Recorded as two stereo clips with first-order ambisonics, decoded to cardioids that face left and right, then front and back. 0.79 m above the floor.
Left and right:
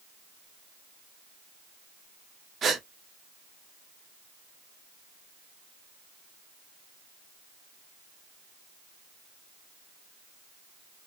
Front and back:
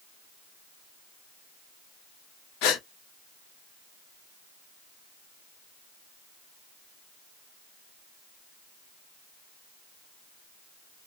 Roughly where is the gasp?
Ahead.